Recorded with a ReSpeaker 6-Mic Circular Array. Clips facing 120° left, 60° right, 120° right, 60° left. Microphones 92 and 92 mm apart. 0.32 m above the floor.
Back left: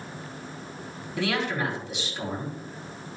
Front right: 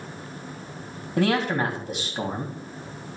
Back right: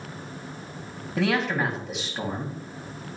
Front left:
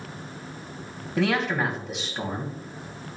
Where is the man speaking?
30° right, 2 m.